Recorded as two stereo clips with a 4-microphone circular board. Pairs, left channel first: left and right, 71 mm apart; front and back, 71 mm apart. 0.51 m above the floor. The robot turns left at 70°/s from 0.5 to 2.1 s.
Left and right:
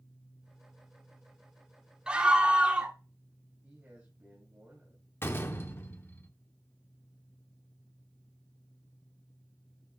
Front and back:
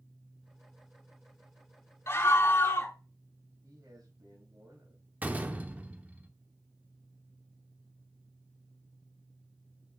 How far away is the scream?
About 1.2 m.